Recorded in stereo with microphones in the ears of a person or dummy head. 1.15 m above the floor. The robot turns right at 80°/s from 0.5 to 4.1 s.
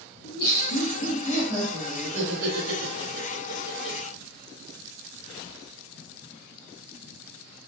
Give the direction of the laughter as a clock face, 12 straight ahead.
9 o'clock.